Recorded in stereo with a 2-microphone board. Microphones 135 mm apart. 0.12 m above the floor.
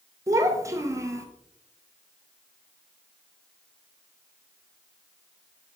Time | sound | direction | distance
0.3 | a child speaking | 25° right (ahead or behind) | 1.2 m